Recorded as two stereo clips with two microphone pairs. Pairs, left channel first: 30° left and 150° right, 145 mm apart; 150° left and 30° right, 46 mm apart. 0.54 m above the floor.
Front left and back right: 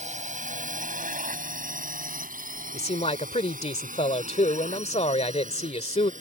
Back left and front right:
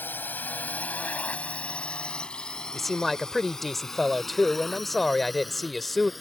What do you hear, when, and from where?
0.0 s a drone: 175° right; by 6.2 s 120° right
2.7 s a man speaking: 65° left